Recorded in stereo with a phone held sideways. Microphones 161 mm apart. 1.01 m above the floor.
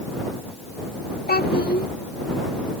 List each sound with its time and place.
1.3 s a child speaking: 80° left